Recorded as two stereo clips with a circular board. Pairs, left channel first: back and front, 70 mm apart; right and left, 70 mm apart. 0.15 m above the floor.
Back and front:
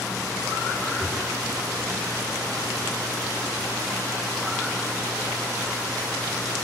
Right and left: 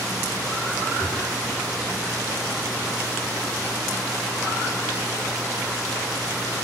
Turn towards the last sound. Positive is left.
turn(degrees=-145)